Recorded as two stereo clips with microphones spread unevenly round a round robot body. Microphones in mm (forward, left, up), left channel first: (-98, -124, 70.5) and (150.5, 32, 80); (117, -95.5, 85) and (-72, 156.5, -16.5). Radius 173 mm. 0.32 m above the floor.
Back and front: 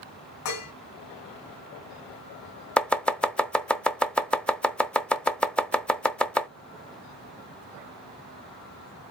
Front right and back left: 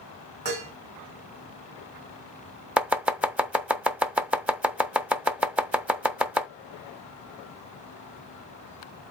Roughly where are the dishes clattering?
Behind.